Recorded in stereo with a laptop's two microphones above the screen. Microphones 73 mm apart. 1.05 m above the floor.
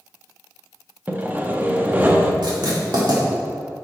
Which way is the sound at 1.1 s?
25° right (ahead or behind).